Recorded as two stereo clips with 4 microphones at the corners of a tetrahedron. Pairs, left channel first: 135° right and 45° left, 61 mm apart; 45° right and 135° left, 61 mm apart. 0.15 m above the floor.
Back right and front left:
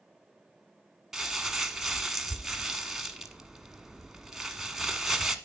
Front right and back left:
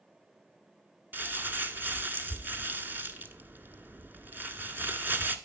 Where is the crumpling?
120° left, 1.2 m.